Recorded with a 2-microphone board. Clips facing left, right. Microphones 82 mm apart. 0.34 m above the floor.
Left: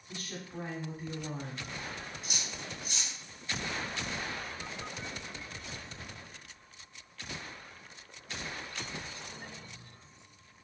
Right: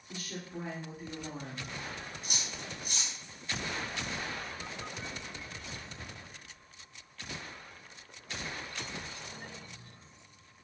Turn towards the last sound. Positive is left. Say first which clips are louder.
# even
turn(degrees=-45)  # may be behind; listen again after turning